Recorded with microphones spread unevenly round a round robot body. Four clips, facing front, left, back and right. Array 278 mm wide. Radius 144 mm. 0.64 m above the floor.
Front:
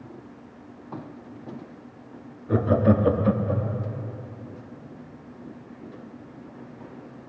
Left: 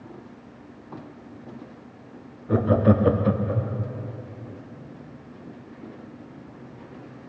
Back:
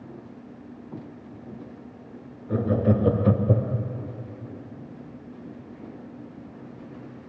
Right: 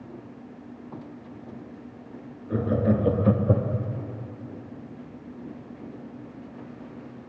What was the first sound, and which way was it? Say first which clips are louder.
Laughter: left 4 dB, front 3 dB; 40° left.